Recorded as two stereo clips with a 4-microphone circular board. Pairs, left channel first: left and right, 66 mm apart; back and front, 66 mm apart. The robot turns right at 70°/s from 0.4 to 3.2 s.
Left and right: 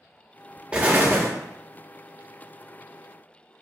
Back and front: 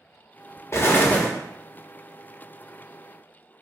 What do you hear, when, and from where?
0.7 s an explosion: 155° right, 0.5 m; by 1.3 s 115° right, 0.5 m